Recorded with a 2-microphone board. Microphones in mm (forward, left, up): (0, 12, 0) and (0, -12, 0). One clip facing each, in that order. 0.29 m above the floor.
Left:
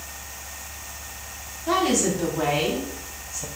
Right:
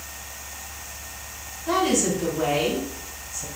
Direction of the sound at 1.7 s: 25° left (ahead or behind).